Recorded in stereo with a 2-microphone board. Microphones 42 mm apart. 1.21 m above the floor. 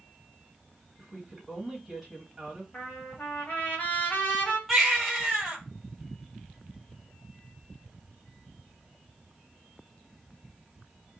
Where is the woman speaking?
5° right (ahead or behind), 1.6 m.